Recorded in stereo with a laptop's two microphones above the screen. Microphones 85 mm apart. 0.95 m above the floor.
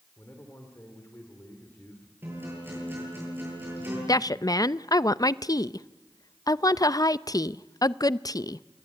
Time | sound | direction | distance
0.2 | a man speaking | 25° left (ahead or behind) | 3 m
2.2 | a guitar | 25° right (ahead or behind) | 10 m
4.1 | a woman speaking | 45° left (ahead or behind) | 0.6 m